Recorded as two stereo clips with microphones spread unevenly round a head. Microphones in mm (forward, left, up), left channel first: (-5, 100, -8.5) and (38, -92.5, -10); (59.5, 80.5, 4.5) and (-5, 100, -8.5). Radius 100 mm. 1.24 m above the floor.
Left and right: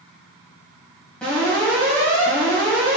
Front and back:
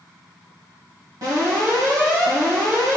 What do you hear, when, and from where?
1.2 s an alarm: 170° right, 1.7 m